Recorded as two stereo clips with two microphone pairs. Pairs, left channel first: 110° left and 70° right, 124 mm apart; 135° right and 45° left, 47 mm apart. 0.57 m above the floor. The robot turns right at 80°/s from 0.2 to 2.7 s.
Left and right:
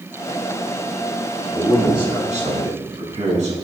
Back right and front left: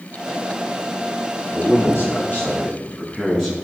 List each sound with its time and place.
1.5 s a man speaking: 150° right, 5.5 m; by 3.5 s 55° right, 5.5 m